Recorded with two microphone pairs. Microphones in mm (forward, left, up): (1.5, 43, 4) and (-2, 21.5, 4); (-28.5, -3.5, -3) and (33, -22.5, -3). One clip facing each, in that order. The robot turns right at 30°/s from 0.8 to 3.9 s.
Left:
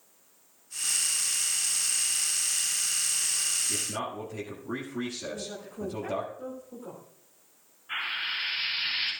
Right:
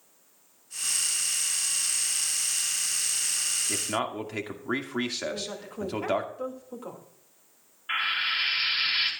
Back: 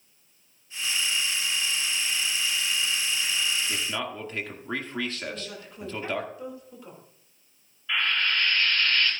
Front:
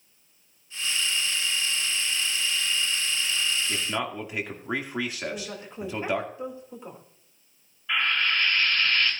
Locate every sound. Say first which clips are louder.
3.7 s a man speaking: right 3 dB, front 2 dB; 100° right, 2 m; by 6.3 s 95° right, 2 m
5.3 s a woman speaking: right 3 dB, front 3 dB; 80° right, 2.5 m
7.9 s frying: right 5 dB, front 1 dB; 95° right, 5 m